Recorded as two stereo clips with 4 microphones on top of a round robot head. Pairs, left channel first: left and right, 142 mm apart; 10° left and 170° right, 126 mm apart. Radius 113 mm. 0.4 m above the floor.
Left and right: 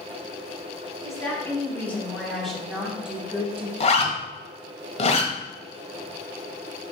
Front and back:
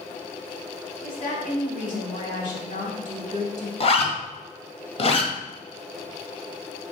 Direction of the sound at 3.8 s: 50° left.